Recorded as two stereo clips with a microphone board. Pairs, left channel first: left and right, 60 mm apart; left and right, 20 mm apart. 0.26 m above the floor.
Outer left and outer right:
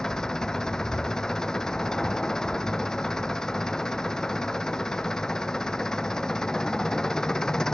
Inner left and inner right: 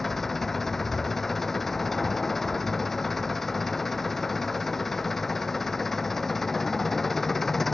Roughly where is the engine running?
Centre.